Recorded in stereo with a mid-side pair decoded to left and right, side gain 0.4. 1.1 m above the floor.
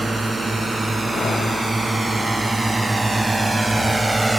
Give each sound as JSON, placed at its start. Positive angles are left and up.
{"t": 0.0, "sound": "a drone", "azimuth_deg": -20}